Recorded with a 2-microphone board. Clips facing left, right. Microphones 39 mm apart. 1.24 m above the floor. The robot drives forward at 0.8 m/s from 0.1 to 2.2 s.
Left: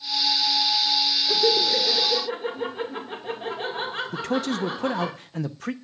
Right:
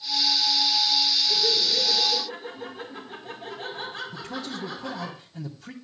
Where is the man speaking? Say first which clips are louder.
Left 9 dB; 70° left (ahead or behind), 0.8 m.